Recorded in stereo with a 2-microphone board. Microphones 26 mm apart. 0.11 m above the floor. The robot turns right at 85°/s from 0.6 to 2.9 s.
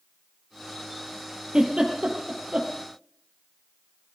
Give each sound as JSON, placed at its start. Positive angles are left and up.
{"t": 1.5, "sound": "a giggle", "side_deg": -35, "distance_m": 3.0}